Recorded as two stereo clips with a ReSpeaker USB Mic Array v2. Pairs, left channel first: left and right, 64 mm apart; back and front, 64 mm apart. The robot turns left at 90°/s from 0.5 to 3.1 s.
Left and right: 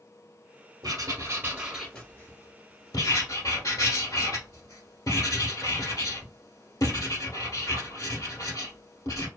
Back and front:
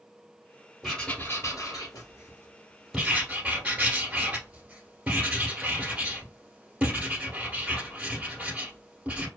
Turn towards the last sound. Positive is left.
turn(degrees=70)